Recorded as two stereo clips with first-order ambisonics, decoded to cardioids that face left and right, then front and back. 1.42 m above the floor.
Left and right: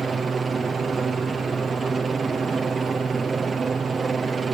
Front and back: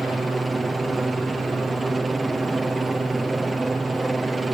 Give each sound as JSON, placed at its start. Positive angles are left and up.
{"t": 0.0, "sound": "a helicopter", "azimuth_deg": -120}